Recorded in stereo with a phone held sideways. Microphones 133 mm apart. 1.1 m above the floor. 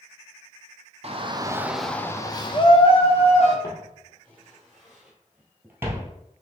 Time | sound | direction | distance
1.0 | a shout | 50° right (ahead or behind) | 0.7 m
3.6 | footsteps | 20° left (ahead or behind) | 1.8 m